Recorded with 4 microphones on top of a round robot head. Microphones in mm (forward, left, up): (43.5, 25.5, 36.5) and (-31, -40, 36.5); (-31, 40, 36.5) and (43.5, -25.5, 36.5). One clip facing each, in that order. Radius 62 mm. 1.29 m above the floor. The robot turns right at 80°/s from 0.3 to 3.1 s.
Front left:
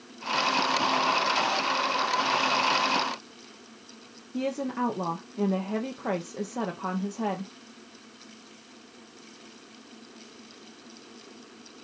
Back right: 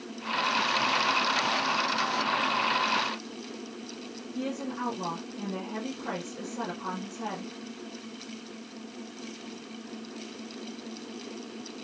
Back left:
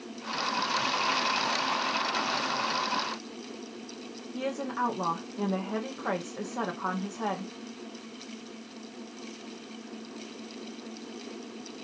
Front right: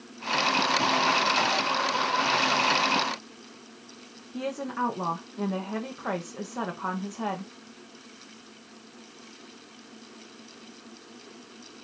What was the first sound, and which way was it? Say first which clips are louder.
A woman speaking: front left 4 dB, front right 1 dB; 50° left.